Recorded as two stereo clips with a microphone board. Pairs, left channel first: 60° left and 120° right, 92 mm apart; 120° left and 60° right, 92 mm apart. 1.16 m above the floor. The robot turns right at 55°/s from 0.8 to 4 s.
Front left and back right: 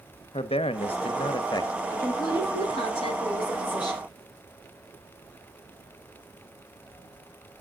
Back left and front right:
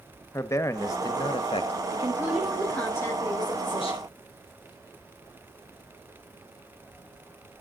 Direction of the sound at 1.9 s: 5° right.